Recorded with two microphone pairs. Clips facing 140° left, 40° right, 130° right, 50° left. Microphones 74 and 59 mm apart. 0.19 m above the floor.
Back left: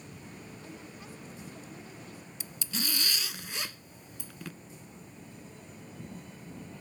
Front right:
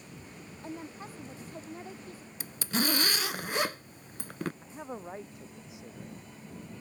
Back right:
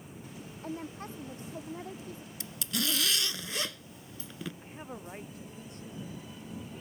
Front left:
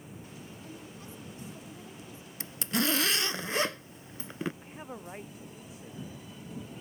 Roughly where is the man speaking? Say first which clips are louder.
Front right 9 dB, front left 1 dB; ahead right.